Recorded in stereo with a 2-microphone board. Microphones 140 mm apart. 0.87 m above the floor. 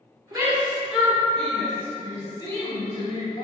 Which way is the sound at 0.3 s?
25° right (ahead or behind).